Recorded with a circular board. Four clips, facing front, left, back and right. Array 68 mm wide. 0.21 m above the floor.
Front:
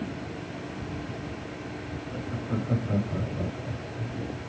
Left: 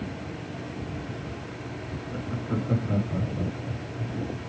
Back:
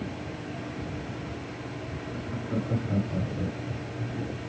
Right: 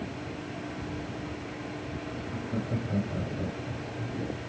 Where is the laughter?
80° left, 2.5 m; by 4.2 s 40° right, 1.3 m.